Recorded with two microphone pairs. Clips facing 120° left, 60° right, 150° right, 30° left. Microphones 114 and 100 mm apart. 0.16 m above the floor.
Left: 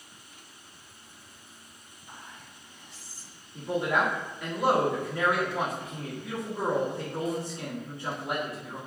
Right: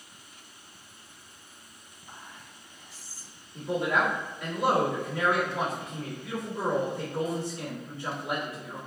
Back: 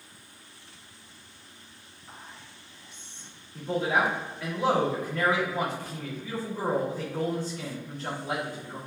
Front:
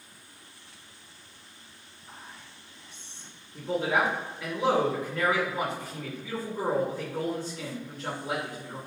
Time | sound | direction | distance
2.1 | whispering | 130° left | 1.8 m
3.5 | a man speaking | 105° left | 1.6 m